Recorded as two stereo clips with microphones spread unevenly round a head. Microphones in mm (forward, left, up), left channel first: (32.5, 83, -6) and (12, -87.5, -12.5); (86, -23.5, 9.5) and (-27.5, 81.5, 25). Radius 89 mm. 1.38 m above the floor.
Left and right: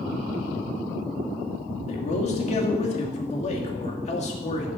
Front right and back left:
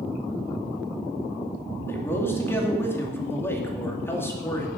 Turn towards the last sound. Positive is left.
turn(degrees=35)